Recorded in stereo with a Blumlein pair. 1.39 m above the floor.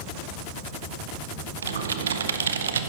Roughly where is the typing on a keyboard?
Ahead right.